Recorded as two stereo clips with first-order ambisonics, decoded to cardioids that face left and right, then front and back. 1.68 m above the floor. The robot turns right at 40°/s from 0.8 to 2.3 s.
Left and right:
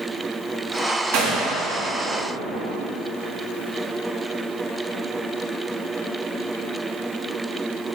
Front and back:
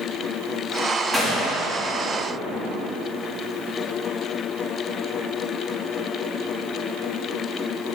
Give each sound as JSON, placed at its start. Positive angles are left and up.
{"t": 1.1, "sound": "a gunshot", "azimuth_deg": -95, "distance_m": 2.5}